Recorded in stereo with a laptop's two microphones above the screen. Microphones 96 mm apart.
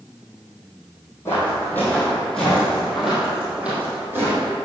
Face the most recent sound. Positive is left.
turn(degrees=-25)  # may be behind; listen again after turning